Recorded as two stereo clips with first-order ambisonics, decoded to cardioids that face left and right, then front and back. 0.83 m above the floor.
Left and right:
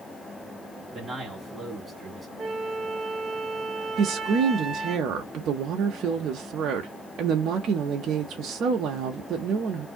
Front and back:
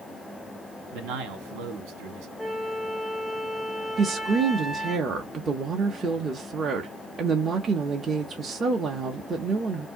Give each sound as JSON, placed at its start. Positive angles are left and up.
{"t": 0.9, "sound": "a man speaking", "azimuth_deg": 180, "distance_m": 1.4}
{"t": 2.4, "sound": "a flute", "azimuth_deg": -60, "distance_m": 0.8}
{"t": 4.0, "sound": "a woman speaking", "azimuth_deg": -115, "distance_m": 0.7}